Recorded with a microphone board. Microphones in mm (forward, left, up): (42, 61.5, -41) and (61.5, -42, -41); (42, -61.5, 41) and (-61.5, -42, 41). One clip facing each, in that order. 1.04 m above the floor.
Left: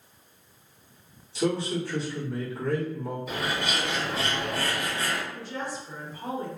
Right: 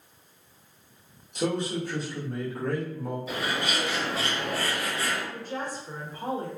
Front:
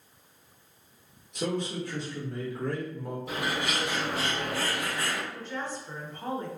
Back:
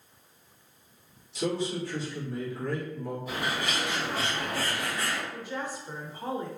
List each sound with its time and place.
1.4 s a man speaking: 45° right, 1.4 m
3.3 s a bird: 10° left, 1.8 m
5.3 s a woman speaking: 110° right, 0.8 m